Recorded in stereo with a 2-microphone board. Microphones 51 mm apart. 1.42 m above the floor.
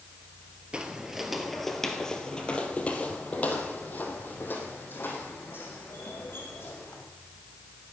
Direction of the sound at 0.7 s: 20° right (ahead or behind).